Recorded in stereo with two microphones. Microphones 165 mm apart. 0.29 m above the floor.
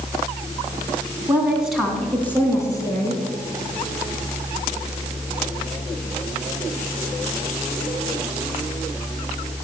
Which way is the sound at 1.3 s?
15° right (ahead or behind).